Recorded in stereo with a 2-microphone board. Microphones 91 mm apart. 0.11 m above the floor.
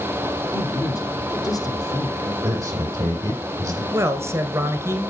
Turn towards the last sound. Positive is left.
turn(degrees=-30)  # may be behind; listen again after turning